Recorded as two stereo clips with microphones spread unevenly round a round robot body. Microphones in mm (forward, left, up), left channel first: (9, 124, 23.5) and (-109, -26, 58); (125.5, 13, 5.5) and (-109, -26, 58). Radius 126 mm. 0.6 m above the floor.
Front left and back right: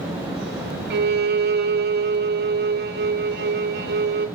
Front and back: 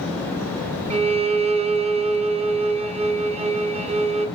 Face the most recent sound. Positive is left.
turn(degrees=-100)